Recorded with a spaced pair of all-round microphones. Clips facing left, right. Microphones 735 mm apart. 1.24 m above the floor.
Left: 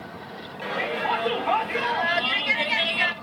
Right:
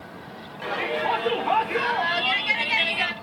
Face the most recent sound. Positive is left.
turn(degrees=10)  # may be behind; listen again after turning